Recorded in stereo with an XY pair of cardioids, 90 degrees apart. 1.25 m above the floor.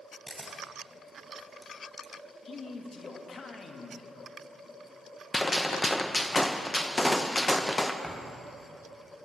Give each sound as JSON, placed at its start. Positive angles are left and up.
{"t": 0.3, "sound": "a camera shutter", "azimuth_deg": -10, "distance_m": 3.5}
{"t": 2.5, "sound": "a man speaking", "azimuth_deg": 50, "distance_m": 1.9}
{"t": 5.3, "sound": "a gunshot", "azimuth_deg": 30, "distance_m": 1.0}
{"t": 8.0, "sound": "a thud", "azimuth_deg": 15, "distance_m": 3.0}